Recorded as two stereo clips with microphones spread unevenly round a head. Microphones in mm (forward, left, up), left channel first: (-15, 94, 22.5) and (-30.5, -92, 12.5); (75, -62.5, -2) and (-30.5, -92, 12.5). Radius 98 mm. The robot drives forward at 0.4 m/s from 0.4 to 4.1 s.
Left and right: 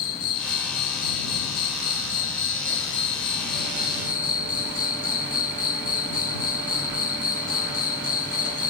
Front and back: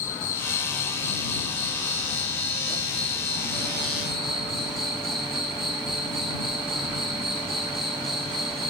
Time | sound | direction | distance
0.0 | an insect | 60° left | 1.2 m